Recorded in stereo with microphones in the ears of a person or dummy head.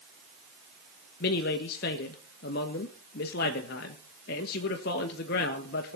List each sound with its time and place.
1.2 s a man speaking: 60° left (ahead or behind), 1.3 m